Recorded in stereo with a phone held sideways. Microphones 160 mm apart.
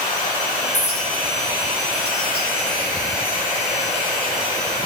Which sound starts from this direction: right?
A clink, at 0.7 s.